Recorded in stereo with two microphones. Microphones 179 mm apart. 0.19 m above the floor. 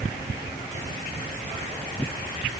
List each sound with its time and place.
Only background noise.